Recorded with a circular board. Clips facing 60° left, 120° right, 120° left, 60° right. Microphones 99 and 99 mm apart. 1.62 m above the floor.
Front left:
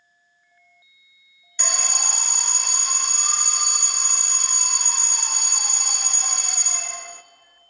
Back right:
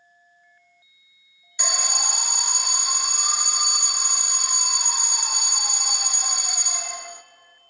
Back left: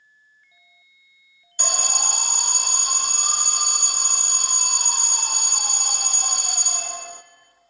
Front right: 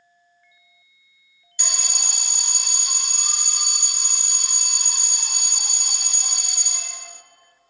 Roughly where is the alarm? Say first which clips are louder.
Back right 1 dB, back left 8 dB; behind.